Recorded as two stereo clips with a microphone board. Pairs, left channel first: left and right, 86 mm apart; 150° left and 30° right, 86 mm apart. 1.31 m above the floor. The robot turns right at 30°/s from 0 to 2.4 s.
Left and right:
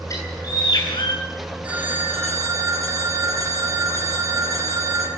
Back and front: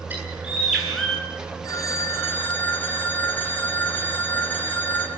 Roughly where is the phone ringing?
Behind.